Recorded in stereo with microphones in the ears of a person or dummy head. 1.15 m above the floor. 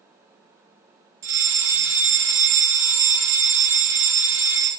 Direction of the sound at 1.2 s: 60° right (ahead or behind).